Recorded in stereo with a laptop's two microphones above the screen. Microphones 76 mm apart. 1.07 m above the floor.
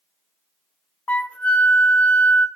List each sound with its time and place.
1.1 s a flute: 20° left (ahead or behind), 0.8 m